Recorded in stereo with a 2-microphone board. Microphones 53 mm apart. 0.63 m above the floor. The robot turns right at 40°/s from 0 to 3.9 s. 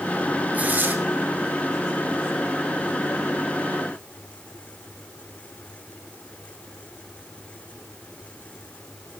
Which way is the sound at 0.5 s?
30° right (ahead or behind).